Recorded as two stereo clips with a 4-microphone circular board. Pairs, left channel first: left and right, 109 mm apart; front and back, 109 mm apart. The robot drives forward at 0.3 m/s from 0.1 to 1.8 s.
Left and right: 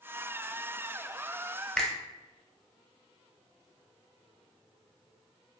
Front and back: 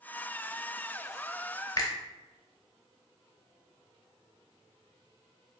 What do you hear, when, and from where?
1.8 s a finger snap: 10° left, 0.5 m